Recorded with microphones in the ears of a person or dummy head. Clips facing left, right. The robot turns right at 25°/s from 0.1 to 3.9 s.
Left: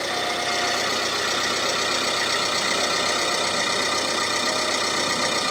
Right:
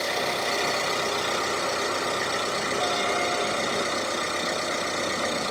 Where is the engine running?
Straight ahead, 5.5 m; by 5.5 s 95° left, 5.5 m.